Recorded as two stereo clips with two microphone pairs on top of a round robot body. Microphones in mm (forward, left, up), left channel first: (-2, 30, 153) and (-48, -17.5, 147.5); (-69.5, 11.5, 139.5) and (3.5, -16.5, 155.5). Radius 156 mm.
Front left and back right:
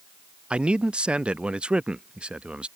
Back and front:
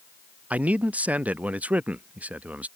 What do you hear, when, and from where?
0.5 s a man speaking: 100° right